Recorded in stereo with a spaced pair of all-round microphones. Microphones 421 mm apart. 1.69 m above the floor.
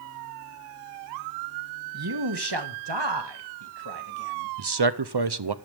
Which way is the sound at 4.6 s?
70° right (ahead or behind).